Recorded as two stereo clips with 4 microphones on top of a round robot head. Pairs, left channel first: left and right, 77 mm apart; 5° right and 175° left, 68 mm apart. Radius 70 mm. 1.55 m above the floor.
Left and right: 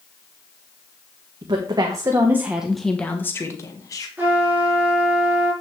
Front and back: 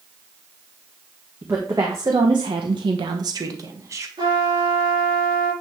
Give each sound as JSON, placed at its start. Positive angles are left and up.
{"t": 1.4, "sound": "a woman speaking", "azimuth_deg": -120, "distance_m": 1.7}
{"t": 4.2, "sound": "a trumpet", "azimuth_deg": -160, "distance_m": 5.5}